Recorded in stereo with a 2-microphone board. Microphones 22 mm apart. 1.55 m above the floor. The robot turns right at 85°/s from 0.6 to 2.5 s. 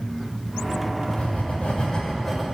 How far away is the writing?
About 6.5 m.